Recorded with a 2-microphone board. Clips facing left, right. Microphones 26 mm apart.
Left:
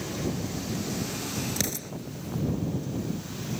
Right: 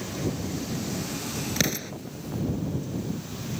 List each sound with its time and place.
1.6 s an explosion: 30° right (ahead or behind)